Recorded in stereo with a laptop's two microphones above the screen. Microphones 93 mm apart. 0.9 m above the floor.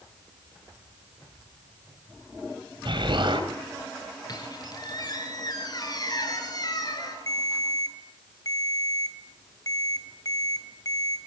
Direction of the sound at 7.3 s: 40° left (ahead or behind).